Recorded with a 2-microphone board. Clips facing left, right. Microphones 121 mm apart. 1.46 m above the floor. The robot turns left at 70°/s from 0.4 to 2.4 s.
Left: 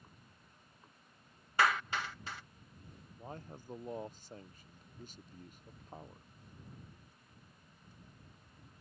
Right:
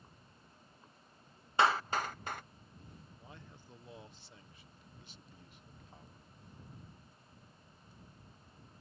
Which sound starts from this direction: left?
A man speaking, at 3.2 s.